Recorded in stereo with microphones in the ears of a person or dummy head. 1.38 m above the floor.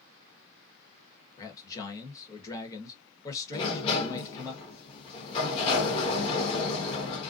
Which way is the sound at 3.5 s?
35° left (ahead or behind).